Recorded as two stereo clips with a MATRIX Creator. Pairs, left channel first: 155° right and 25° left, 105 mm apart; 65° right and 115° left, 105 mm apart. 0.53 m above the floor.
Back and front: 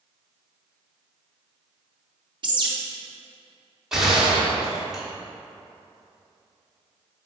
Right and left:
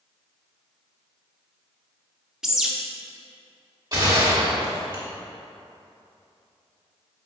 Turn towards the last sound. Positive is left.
turn(degrees=105)